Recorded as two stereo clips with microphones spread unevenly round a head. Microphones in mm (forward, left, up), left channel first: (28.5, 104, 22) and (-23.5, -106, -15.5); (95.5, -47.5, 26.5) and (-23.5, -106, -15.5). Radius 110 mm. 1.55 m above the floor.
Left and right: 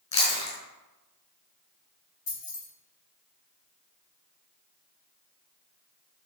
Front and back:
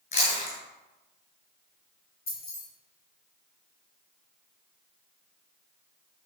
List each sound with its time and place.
0.1 s chewing: 15° left, 5.5 m
2.3 s keys jangling: 35° left, 5 m